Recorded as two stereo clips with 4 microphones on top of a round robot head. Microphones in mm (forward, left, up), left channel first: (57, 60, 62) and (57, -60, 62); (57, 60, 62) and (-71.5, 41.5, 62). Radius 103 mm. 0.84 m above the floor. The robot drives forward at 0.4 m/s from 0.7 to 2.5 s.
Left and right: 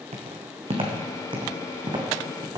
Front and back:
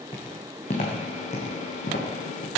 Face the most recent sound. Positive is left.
turn(degrees=-30)